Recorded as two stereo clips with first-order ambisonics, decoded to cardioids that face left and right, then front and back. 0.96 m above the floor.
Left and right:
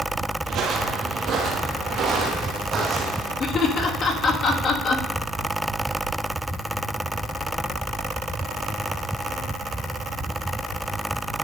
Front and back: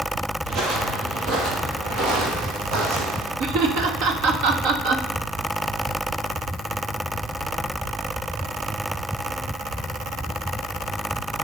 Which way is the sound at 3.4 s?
155° left.